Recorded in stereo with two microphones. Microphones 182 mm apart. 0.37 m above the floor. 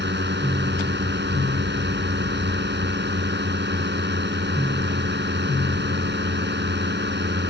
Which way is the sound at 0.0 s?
70° right (ahead or behind).